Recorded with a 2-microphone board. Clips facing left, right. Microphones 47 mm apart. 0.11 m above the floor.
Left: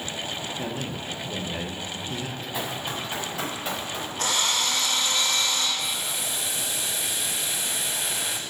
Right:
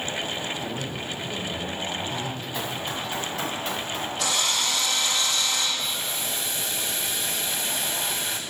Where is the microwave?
I don't hear a microwave.